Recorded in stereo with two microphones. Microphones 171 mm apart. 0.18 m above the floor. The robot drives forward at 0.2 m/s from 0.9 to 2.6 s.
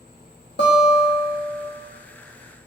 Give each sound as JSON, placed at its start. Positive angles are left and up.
{"t": 0.6, "sound": "a guitar", "side_deg": 80, "distance_m": 1.9}